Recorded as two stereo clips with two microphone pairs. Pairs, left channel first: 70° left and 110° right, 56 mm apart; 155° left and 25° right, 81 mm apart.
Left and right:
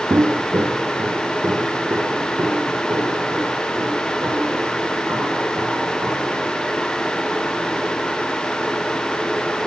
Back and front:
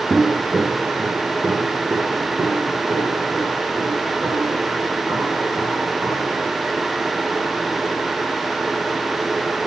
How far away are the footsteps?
About 0.5 m.